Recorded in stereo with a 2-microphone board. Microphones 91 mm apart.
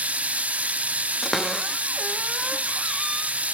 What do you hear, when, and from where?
0.0 s running water: 15° right (ahead or behind), 0.7 m
1.2 s a cupboard door: centre (ahead or behind), 1.0 m